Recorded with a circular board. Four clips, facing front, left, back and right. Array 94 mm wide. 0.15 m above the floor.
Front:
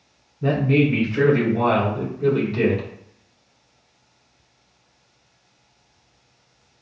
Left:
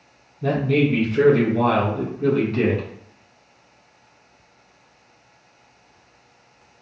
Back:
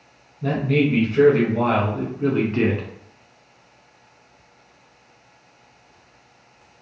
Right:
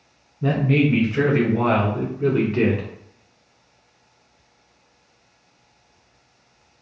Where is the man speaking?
50° right, 1.2 m; by 2.9 s 165° right, 1.3 m.